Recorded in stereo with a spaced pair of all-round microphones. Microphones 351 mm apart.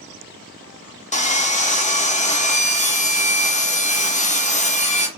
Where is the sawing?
20° left (ahead or behind), 0.8 m.